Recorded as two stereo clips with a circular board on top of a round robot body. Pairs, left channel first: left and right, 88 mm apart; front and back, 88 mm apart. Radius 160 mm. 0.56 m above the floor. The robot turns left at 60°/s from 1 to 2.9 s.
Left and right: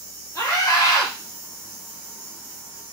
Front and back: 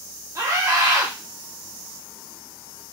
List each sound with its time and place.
0.3 s a scream: 130° left, 1.6 m; by 1.1 s 125° left, 1.6 m